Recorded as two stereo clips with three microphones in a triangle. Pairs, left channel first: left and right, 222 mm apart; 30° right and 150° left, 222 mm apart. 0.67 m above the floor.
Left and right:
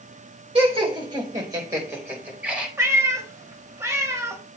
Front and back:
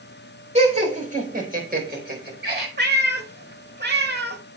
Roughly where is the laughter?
Behind right.